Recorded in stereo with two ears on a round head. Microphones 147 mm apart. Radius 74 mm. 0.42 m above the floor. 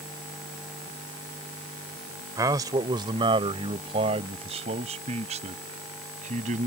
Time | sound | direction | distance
2.4 | a man speaking | 20° right (ahead or behind) | ?